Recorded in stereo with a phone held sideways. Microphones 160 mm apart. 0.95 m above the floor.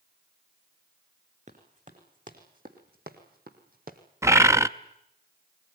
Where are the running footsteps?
50° right (ahead or behind), 4 m; by 4.0 s 60° right (ahead or behind), 2.5 m.